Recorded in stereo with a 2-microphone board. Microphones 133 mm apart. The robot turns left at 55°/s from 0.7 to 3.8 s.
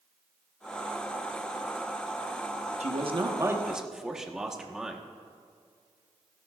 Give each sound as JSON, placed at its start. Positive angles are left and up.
{"t": 2.8, "sound": "a man speaking", "azimuth_deg": -120, "distance_m": 1.2}